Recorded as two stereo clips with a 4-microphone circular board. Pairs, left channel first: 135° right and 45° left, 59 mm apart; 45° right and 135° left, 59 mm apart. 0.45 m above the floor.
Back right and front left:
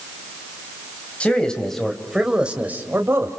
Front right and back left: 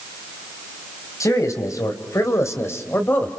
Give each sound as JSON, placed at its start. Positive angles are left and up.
{"t": 1.2, "sound": "a man speaking", "azimuth_deg": -65, "distance_m": 3.0}